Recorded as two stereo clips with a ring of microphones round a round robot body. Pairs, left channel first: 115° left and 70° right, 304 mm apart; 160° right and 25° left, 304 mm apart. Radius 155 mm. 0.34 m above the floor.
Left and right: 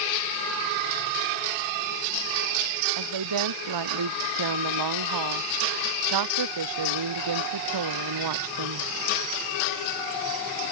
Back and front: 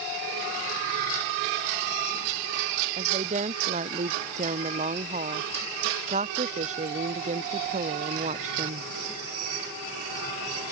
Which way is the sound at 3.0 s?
45° right.